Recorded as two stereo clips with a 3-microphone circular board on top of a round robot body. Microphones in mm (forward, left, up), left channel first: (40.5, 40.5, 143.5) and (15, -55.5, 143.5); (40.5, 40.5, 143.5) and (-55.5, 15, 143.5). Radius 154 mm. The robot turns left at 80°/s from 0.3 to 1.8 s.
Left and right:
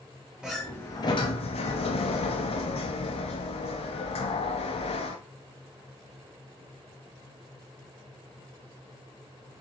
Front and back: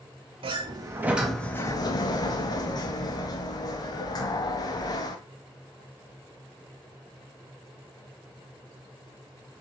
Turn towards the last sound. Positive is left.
turn(degrees=65)